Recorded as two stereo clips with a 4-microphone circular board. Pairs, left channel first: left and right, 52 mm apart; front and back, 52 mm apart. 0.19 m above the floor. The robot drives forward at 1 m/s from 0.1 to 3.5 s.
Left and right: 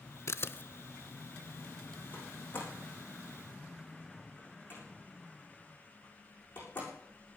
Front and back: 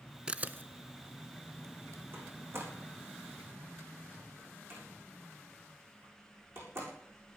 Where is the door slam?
140° left, 6.5 m; by 6.9 s 145° left, 7.5 m.